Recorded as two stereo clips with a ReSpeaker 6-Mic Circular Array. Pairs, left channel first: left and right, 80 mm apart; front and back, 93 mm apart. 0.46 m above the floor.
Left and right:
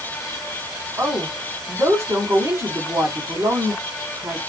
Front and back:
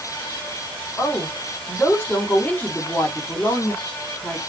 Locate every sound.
1.0 s a woman speaking: 60° right, 1.4 m